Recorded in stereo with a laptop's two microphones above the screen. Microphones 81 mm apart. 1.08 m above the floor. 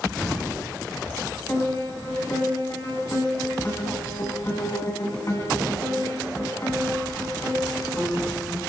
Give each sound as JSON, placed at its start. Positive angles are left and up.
{"t": 0.2, "sound": "an explosion", "side_deg": 10, "distance_m": 10.0}
{"t": 1.5, "sound": "a piano", "side_deg": 40, "distance_m": 8.0}